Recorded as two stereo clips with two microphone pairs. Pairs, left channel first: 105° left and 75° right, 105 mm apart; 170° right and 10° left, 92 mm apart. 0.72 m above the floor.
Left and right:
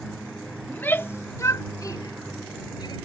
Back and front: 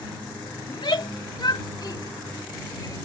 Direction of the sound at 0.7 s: 175° left.